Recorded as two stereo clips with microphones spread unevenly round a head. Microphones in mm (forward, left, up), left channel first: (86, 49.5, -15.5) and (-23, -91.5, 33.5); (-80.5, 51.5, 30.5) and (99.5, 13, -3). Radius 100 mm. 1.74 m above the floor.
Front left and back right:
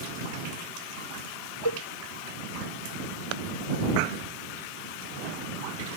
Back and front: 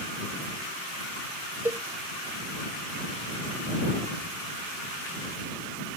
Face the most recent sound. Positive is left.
turn(degrees=70)